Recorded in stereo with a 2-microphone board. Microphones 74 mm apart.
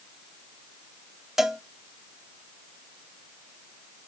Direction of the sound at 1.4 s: 5° right (ahead or behind).